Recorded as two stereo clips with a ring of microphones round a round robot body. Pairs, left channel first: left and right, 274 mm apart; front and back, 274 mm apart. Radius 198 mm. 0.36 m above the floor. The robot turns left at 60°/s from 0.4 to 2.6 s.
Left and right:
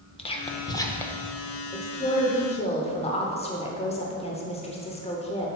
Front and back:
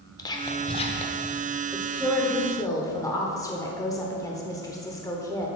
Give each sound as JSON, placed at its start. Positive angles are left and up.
{"t": 0.2, "sound": "whispering", "azimuth_deg": 55, "distance_m": 0.9}
{"t": 1.7, "sound": "a woman speaking", "azimuth_deg": 115, "distance_m": 0.9}